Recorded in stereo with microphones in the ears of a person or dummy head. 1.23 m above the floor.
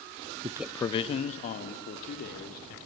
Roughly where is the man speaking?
Right.